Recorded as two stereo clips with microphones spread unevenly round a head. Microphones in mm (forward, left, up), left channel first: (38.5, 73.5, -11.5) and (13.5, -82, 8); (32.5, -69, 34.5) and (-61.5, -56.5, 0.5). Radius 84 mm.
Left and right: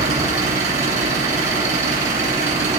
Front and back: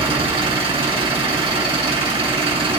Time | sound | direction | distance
0.0 | an engine running | 150° right | 6.5 m